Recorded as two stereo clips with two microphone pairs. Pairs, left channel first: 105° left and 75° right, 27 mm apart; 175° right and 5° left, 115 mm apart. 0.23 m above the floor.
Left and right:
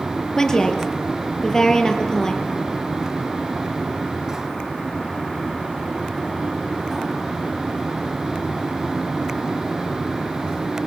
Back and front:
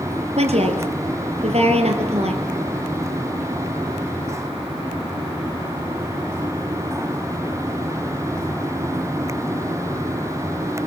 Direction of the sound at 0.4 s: 35° left.